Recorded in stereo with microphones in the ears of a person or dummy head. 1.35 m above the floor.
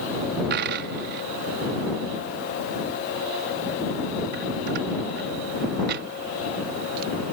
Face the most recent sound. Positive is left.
turn(degrees=-40)  # may be behind; listen again after turning